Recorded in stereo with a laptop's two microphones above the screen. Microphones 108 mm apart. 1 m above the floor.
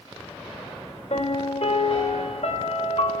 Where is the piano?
75° left (ahead or behind), 3 m.